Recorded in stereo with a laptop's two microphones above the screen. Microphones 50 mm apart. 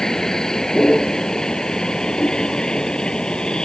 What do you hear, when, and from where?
0.0 s a vehicle: 10° left (ahead or behind); by 3.7 s 15° left (ahead or behind)